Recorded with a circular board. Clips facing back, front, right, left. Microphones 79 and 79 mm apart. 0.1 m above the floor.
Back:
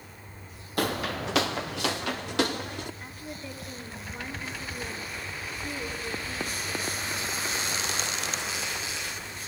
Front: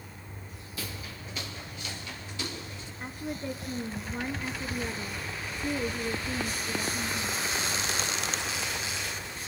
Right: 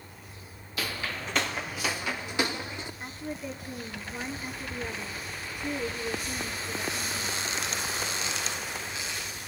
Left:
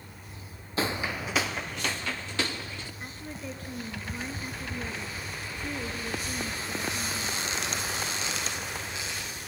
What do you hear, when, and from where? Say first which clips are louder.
0.8 s footsteps: back 13 dB, left 4 dB; 150° left, 0.6 m; by 2.9 s 160° right, 1.7 m
3.0 s a woman speaking: front 4 dB, right 4 dB; 20° right, 1.6 m